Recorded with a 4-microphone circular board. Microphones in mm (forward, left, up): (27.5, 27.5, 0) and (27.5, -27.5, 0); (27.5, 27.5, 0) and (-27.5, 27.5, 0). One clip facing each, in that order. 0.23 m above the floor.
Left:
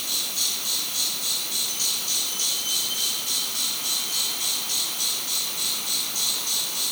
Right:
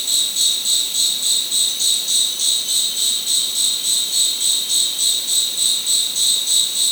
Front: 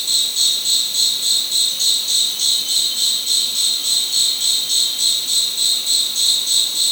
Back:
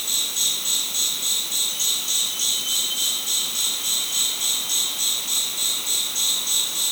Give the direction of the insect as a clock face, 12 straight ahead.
8 o'clock.